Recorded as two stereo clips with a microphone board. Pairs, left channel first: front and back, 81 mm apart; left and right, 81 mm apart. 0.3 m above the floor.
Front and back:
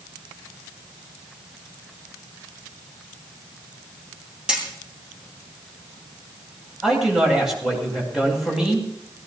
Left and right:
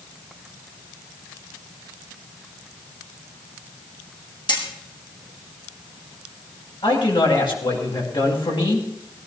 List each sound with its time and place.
4.5 s hammering: 100° left, 6 m
6.8 s a man speaking: 95° left, 9.5 m